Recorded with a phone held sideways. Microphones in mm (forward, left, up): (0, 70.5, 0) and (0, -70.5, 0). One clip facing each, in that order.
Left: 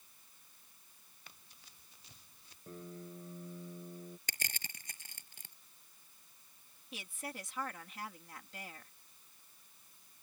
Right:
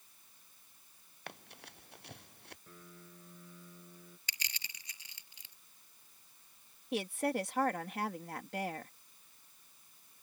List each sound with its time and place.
1.3 s running footsteps: 70° right (ahead or behind); by 2.6 s 65° right (ahead or behind)
2.7 s a piano: 35° left (ahead or behind)
4.3 s crushing: 50° left (ahead or behind)
6.9 s a woman speaking: 65° right (ahead or behind)